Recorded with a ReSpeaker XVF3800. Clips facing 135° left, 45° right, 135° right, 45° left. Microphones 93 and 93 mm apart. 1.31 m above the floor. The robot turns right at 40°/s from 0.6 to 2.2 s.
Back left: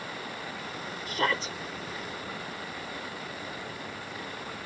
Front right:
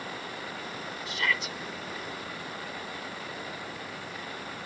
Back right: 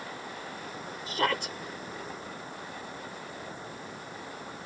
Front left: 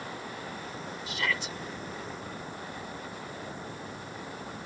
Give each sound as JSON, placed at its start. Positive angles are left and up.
{"t": 1.1, "sound": "a shout", "azimuth_deg": 180}